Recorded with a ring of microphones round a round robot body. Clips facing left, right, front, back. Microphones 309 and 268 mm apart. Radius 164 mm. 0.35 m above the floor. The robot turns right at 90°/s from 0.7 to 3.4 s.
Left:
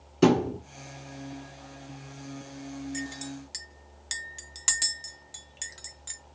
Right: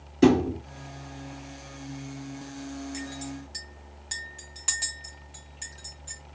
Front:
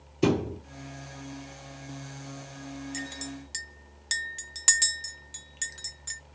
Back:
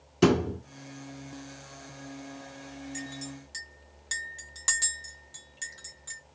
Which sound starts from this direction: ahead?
A clink, at 2.9 s.